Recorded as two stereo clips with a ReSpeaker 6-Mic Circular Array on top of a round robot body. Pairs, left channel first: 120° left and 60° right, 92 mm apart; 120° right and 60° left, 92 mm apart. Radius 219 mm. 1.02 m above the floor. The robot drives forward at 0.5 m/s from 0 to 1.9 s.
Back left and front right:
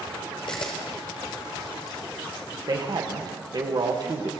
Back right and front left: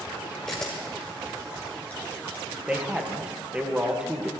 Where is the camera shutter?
155° left, 1.1 m; by 2.5 s 165° left, 1.7 m.